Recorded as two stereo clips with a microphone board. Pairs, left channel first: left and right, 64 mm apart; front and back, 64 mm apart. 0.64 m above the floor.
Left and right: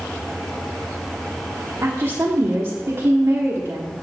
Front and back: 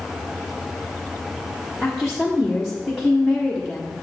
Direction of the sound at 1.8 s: 85° right.